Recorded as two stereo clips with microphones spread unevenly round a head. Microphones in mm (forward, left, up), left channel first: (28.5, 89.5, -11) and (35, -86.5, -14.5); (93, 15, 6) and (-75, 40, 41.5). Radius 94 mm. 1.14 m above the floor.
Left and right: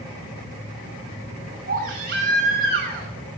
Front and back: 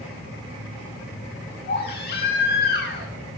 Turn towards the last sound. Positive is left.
turn(degrees=-50)